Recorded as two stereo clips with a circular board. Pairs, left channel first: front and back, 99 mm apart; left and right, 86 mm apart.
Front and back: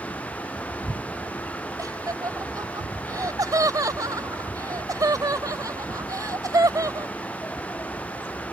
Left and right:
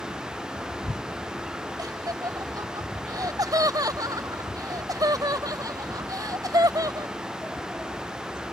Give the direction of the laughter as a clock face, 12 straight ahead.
4 o'clock.